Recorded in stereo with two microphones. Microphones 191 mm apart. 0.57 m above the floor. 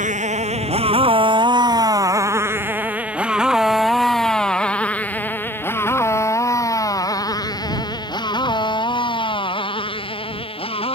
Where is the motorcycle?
40° right (ahead or behind); by 10.9 s 30° left (ahead or behind).